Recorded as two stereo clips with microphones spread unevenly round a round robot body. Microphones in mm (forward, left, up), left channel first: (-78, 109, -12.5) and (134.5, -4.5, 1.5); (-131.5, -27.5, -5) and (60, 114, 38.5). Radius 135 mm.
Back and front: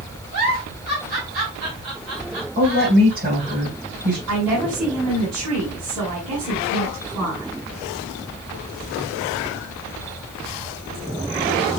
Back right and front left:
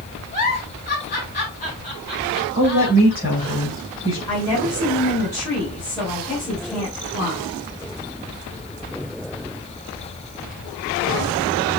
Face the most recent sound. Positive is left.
turn(degrees=-65)